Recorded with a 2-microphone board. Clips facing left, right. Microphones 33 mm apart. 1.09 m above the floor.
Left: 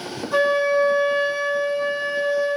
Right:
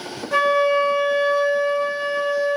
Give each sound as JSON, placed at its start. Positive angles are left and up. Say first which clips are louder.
{"t": 0.3, "sound": "a flute", "louder": "right 1 dB", "side_deg": -85, "distance_m": 1.1}